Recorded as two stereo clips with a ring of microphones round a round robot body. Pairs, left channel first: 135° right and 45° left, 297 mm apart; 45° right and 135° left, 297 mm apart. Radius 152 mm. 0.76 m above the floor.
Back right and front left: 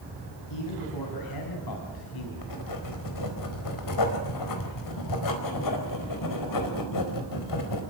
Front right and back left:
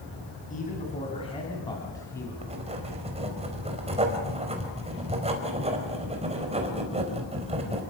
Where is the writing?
155° right, 4.5 m.